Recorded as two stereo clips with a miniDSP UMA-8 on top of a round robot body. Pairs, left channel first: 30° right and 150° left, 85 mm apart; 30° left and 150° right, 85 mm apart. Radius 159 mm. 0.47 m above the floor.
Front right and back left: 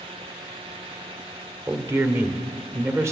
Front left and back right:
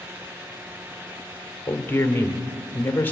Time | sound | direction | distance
1.7 | a man speaking | 95° left | 2 m